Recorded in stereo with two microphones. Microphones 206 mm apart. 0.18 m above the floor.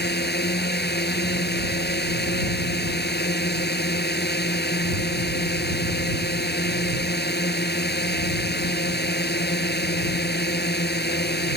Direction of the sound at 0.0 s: 55° left (ahead or behind).